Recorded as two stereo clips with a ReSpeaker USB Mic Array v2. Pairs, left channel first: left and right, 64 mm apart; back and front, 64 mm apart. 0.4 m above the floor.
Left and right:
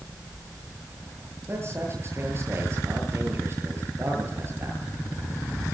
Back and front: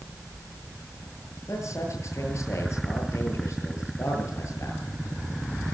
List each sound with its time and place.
1.5 s a man speaking: 140° right, 9 m